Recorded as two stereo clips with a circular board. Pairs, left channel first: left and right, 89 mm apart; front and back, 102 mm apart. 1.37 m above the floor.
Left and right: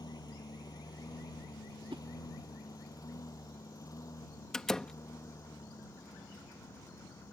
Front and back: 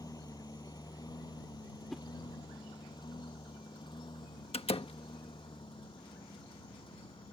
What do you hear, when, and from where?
0.0 s a lawn mower: 50° left; by 7.3 s 35° left
1.9 s a whoosh: 90° right
4.5 s a door slam: 5° left